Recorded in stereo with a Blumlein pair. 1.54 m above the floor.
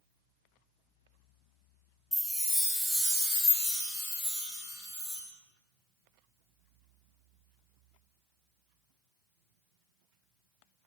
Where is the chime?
Straight ahead, 0.7 m.